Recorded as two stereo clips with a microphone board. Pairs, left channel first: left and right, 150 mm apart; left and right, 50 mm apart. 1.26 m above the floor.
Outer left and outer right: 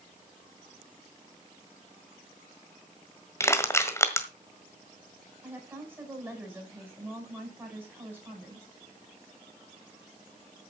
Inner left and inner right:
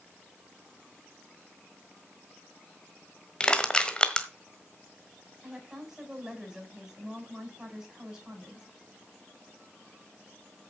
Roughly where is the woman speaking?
Centre.